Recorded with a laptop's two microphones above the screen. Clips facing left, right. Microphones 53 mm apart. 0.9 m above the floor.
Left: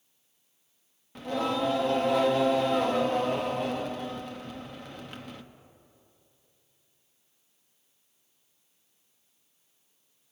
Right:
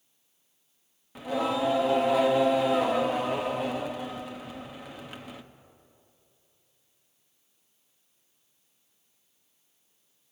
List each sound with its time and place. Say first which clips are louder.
1.1 s singing: right 1 dB; 5° right (ahead or behind), 0.9 m